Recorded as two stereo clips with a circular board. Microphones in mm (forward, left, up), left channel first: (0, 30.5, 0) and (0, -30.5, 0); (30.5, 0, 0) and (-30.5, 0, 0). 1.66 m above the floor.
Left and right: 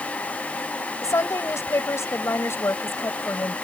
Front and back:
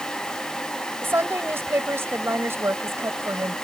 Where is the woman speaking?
130° left; by 3.5 s 140° left.